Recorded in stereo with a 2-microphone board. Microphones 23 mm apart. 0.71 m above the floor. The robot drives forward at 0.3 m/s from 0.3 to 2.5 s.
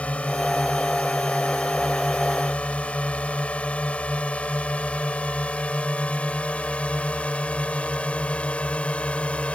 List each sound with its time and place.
0.0 s a drone: 65° left (ahead or behind); by 9.6 s 60° left (ahead or behind)